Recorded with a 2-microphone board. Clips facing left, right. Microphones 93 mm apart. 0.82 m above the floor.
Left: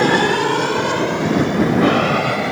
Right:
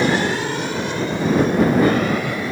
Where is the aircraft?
60° left (ahead or behind); by 2.5 s 75° left (ahead or behind).